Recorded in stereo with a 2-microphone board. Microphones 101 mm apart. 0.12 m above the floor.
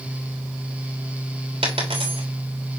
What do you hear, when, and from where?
1.6 s a dropped coin: 85° right, 3 m